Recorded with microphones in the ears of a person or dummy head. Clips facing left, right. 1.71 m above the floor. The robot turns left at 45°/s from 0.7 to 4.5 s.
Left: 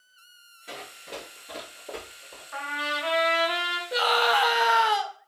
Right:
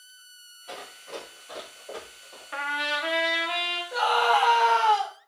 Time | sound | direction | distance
0.7 | running footsteps | 25° left (ahead or behind) | 1.8 m
2.5 | a trumpet | 145° right | 0.6 m
3.9 | a scream | 35° left (ahead or behind) | 0.8 m